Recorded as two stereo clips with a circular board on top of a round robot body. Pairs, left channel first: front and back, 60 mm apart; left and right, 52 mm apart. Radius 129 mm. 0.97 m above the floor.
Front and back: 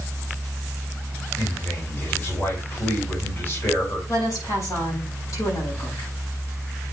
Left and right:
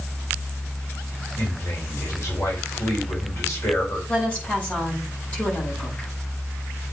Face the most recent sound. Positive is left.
turn(degrees=25)